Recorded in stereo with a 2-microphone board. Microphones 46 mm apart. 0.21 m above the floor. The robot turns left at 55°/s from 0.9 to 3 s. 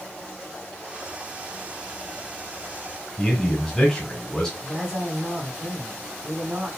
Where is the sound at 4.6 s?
20° right (ahead or behind), 1.7 m.